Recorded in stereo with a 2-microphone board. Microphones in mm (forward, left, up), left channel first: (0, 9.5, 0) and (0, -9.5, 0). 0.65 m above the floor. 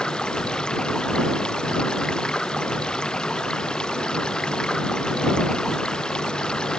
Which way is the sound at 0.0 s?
55° left (ahead or behind).